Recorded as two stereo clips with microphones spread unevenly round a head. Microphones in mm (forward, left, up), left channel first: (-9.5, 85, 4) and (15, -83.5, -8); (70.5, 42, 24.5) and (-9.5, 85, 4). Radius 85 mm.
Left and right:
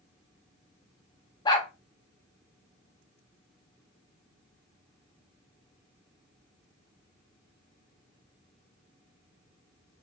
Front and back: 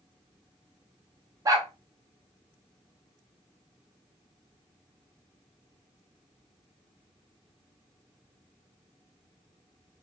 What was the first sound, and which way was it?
A dog barking, 120° left.